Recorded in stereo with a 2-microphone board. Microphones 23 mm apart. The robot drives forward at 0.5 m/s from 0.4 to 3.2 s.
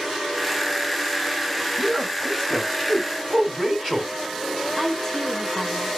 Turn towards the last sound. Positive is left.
turn(degrees=25)  # may be behind; listen again after turning